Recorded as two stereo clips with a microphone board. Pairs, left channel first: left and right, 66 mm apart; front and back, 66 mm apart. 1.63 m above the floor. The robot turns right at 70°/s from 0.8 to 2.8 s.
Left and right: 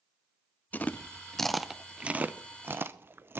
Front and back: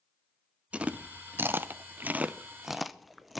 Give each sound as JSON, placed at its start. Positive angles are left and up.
{"t": 0.7, "sound": "chewing", "azimuth_deg": 125, "distance_m": 0.7}